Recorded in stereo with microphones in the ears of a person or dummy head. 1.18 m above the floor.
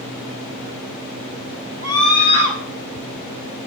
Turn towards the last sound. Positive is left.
turn(degrees=-70)  # may be behind; listen again after turning